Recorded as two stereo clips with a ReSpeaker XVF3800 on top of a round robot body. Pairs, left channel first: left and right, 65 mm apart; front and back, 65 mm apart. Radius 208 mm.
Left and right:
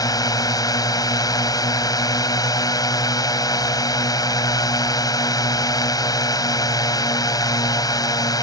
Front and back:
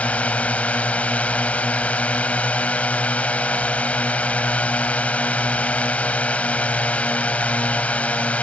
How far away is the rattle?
I don't hear a rattle.